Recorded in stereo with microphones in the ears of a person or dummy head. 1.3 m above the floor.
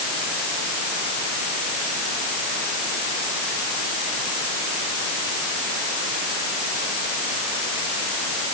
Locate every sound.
Only background noise.